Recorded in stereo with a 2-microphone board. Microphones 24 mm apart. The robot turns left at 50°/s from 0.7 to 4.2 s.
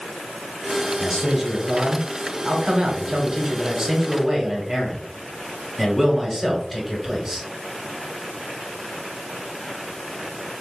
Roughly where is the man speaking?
Ahead.